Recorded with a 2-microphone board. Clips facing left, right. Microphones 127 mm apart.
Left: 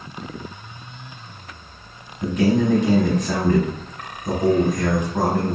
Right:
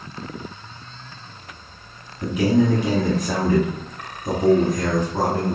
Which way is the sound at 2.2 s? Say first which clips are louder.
Even; 10° right (ahead or behind).